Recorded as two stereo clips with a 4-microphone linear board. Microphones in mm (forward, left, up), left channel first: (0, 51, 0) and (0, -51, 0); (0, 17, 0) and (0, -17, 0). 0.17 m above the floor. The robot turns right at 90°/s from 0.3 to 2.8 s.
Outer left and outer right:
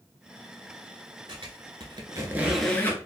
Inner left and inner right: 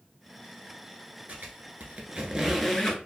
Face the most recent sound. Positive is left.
turn(degrees=15)  # may be behind; listen again after turning